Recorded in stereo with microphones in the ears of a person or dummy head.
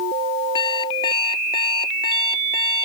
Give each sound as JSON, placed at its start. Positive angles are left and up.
{"t": 0.6, "sound": "an alarm clock", "side_deg": 25}